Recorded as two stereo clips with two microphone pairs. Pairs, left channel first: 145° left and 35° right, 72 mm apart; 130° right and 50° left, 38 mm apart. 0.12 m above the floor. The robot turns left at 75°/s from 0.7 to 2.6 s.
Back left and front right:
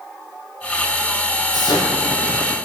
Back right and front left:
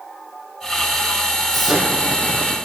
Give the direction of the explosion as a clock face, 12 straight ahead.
7 o'clock.